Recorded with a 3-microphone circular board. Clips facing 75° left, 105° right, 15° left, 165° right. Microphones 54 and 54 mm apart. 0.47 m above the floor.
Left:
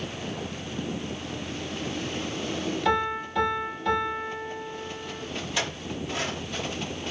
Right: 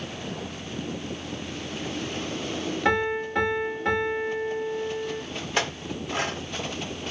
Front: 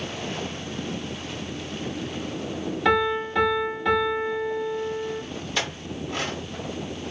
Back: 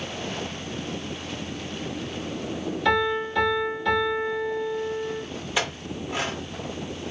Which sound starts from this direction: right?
A clink, at 5.6 s.